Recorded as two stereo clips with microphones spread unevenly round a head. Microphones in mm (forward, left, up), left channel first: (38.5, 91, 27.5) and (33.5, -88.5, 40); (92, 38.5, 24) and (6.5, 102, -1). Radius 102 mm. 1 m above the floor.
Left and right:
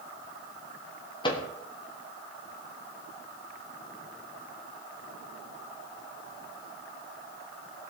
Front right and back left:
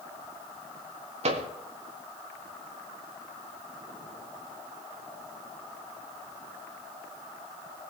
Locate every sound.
1.2 s a microwave: 155° left, 1.4 m